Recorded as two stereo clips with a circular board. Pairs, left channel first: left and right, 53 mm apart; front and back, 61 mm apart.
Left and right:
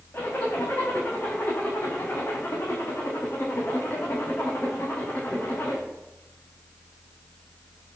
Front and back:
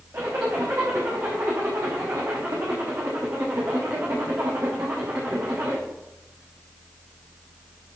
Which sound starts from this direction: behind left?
A zipper, at 0.1 s.